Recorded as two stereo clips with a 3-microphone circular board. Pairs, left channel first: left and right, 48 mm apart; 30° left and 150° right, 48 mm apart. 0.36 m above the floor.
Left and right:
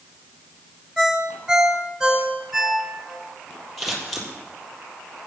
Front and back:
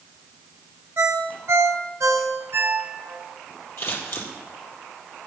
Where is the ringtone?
175° right, 1.9 m.